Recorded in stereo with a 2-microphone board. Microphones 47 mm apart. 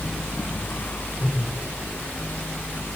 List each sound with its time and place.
1.2 s a whoosh: 45° left (ahead or behind), 9.5 m